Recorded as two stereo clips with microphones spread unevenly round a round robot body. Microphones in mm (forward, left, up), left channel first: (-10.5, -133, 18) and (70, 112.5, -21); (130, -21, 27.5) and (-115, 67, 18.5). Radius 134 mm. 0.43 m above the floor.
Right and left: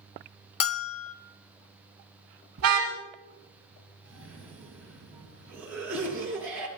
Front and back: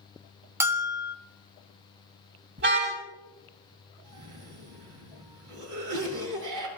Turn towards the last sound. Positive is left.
turn(degrees=155)